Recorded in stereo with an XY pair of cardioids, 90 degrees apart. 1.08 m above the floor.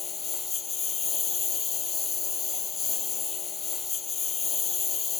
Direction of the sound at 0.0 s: 50° left.